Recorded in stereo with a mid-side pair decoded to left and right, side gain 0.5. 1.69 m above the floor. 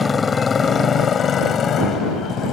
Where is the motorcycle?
30° left; by 2.5 s 60° left.